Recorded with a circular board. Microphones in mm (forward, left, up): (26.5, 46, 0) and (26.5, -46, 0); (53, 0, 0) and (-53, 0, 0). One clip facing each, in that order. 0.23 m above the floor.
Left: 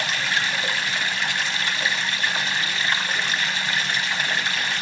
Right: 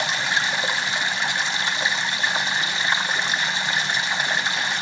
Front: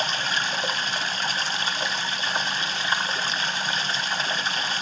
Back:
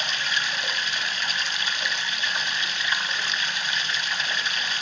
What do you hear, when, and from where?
0.0 s running water: 30° right, 1.0 m